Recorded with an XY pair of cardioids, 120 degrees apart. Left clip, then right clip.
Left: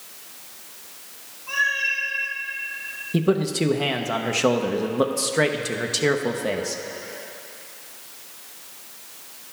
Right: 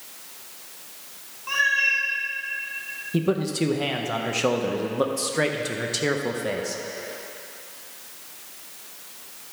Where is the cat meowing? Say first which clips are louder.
Right 2 dB; 50° right, 1.7 m.